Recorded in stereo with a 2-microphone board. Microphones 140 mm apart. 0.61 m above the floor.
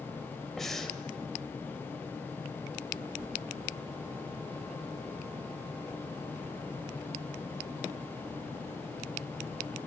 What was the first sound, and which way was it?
Breathing, centre (ahead or behind).